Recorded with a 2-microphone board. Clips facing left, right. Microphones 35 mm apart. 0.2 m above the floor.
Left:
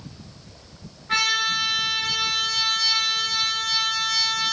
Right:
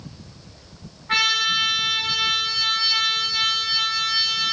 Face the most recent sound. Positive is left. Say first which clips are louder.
# right 2 dB
turn(degrees=-30)  # may be behind; listen again after turning